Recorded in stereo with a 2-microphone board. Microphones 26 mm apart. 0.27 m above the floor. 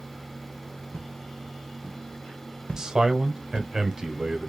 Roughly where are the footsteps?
Left.